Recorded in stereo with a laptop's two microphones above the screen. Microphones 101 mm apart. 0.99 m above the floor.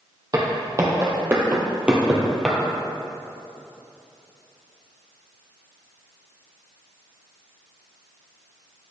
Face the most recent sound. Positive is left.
turn(degrees=0)  # may be behind; listen again after turning